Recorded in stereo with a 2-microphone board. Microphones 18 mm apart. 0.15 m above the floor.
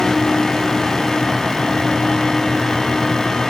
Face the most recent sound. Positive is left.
No sound to turn to.